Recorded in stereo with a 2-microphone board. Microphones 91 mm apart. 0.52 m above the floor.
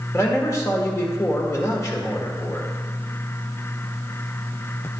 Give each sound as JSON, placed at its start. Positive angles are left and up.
{"t": 0.1, "sound": "a man speaking", "side_deg": 30, "distance_m": 1.4}